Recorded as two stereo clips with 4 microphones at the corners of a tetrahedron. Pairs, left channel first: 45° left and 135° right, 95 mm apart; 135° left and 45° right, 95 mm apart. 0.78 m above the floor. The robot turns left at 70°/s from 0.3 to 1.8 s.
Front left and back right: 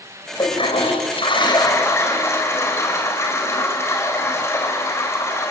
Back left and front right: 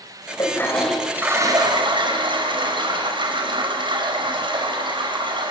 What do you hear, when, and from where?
0.4 s a toilet flushing: 85° left, 4.5 m; by 5.5 s 15° right, 4.5 m